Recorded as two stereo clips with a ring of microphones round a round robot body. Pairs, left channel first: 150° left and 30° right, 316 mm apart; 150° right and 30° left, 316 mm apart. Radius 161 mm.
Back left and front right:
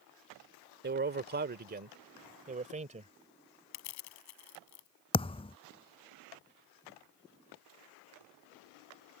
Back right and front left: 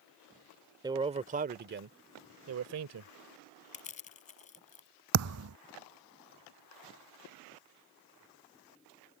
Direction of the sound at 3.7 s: 145° left.